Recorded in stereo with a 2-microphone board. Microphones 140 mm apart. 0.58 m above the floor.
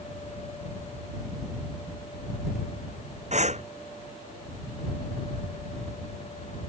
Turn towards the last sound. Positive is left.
turn(degrees=-55)  # may be behind; listen again after turning